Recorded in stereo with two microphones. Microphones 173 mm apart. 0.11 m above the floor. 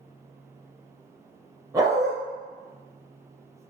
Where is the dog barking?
20° right (ahead or behind), 2.5 m.